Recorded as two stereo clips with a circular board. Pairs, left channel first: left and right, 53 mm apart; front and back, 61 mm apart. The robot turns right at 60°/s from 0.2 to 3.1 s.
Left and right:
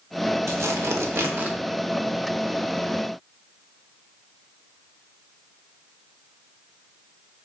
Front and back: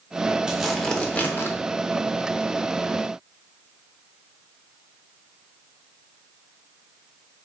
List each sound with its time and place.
0.5 s tearing paper: 105° right, 0.5 m; by 1.6 s 40° right, 0.5 m